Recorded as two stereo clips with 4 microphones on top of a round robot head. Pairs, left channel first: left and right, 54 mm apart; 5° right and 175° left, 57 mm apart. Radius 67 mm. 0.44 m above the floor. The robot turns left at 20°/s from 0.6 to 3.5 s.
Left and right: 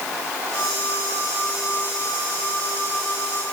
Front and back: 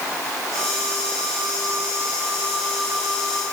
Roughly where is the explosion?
No explosion in this recording.